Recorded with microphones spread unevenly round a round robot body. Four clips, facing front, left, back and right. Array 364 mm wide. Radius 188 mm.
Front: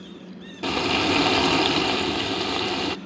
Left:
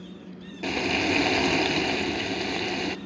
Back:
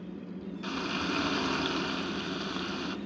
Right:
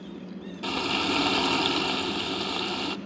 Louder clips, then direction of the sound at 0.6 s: Left 2 dB, front 11 dB; 15° left.